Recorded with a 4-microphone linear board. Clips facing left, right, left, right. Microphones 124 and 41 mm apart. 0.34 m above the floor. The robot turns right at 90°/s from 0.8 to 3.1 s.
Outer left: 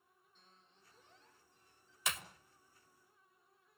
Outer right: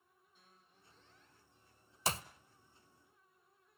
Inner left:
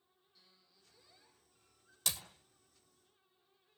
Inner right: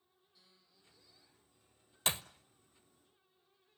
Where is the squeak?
10° right, 5.5 m; by 2.0 s 95° left, 5.5 m.